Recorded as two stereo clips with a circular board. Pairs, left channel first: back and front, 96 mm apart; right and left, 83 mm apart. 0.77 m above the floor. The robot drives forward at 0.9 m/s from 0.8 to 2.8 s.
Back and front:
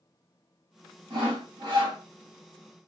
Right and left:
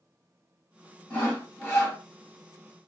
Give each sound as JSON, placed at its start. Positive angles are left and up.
{"t": 1.1, "sound": "sawing", "azimuth_deg": -25, "distance_m": 2.5}